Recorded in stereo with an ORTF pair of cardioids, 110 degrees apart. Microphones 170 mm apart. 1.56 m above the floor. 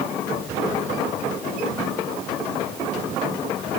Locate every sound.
Only background noise.